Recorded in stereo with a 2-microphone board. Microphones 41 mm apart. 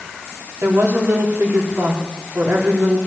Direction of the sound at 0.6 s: 80° right.